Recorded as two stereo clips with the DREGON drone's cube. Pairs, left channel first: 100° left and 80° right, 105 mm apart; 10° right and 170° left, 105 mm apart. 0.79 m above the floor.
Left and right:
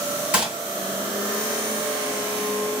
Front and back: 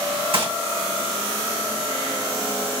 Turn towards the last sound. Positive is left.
turn(degrees=-160)